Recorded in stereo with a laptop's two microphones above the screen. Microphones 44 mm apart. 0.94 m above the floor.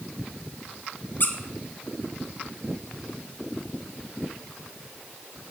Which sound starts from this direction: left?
A squeak, at 1.2 s.